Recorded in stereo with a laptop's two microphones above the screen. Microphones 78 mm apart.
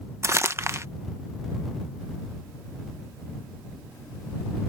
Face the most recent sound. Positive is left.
turn(degrees=-35)  # may be behind; listen again after turning